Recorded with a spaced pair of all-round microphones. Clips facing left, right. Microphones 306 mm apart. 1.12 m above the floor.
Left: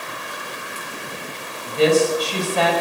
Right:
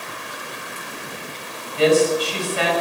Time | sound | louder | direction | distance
1.7 | a woman speaking | even | 55° left (ahead or behind) | 5.5 m